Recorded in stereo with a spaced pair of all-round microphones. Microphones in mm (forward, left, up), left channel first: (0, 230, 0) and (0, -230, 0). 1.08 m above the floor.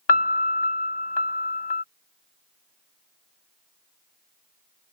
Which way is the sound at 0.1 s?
60° left (ahead or behind).